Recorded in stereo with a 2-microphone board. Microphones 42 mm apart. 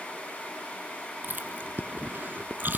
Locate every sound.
1.2 s chewing: 50° right (ahead or behind), 1.1 m